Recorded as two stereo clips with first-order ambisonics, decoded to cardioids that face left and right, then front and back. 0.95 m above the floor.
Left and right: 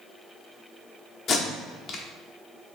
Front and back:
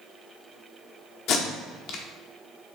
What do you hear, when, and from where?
1.3 s tape being pulled: 30° left, 0.7 m